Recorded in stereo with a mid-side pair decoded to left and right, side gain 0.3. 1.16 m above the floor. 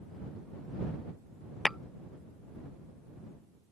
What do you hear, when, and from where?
1.6 s tapping: 10° left